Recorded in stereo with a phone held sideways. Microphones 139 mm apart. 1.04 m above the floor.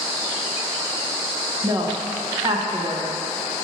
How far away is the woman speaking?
About 0.9 m.